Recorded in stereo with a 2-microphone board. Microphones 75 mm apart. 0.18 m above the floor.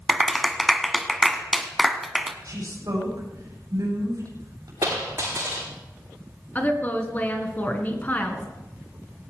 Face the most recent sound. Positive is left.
turn(degrees=25)  # may be behind; listen again after turning